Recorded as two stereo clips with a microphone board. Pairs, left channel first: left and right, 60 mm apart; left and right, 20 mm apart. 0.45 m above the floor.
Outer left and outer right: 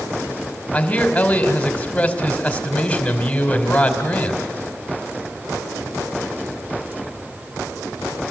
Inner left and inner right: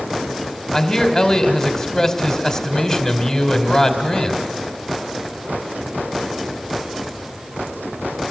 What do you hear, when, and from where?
0.7 s a man speaking: 20° left (ahead or behind), 2.5 m